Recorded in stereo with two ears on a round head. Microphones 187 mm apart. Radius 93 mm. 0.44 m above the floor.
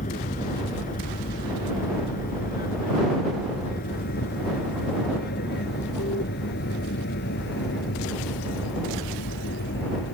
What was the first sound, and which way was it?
An aircraft, 40° left (ahead or behind).